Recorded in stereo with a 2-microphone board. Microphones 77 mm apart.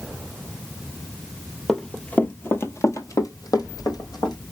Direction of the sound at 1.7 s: 5° left (ahead or behind).